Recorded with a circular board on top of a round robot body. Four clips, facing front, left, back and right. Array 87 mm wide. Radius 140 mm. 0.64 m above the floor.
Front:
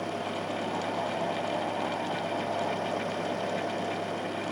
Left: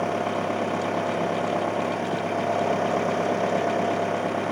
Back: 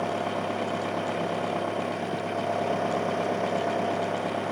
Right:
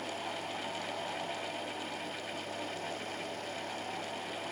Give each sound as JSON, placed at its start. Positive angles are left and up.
{"t": 0.0, "sound": "an engine running", "azimuth_deg": 110}